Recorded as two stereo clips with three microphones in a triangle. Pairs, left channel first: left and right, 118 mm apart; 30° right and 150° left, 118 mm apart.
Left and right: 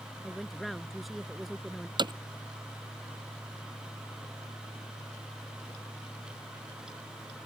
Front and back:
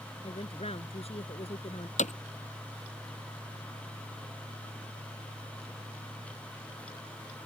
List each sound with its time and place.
0.2 s a woman speaking: straight ahead
2.0 s hammering: 40° right